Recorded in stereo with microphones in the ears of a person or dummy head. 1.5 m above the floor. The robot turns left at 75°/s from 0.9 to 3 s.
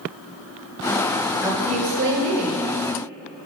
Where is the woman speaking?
10° right, 1.1 m; by 2.6 s 100° right, 1.1 m.